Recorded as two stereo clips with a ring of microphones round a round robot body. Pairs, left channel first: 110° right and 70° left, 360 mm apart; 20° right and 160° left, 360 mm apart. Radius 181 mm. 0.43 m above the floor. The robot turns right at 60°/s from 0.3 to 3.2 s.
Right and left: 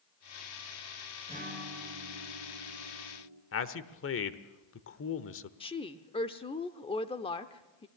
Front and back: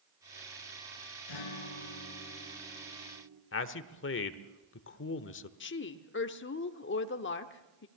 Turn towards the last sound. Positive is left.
turn(degrees=-50)